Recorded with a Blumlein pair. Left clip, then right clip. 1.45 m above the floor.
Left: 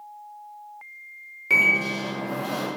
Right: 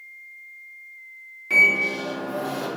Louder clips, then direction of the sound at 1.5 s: Right 2 dB; 15° left.